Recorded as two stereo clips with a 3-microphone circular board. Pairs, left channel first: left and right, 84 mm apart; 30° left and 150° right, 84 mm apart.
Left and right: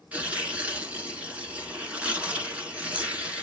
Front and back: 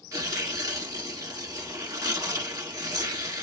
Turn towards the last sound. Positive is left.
turn(degrees=-160)